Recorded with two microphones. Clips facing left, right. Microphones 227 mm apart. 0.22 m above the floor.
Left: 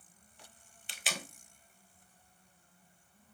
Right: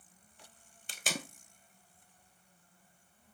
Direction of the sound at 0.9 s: 45° right (ahead or behind).